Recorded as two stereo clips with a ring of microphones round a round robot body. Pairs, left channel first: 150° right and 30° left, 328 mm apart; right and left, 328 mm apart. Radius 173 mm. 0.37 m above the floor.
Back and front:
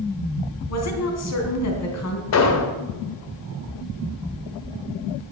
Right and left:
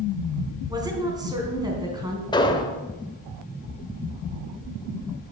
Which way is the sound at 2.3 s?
165° right.